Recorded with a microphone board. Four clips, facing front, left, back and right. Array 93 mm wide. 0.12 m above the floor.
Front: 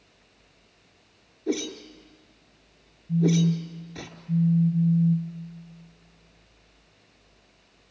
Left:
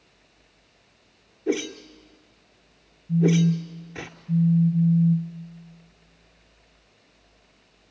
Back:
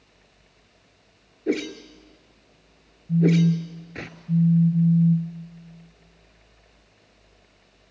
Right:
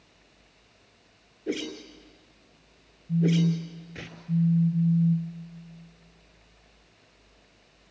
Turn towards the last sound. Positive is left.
turn(degrees=130)